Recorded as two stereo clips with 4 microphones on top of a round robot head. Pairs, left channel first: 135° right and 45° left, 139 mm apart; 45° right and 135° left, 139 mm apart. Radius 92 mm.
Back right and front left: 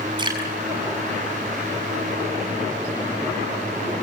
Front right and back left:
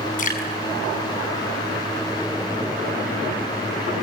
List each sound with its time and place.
0.2 s dripping: 15° right, 6 m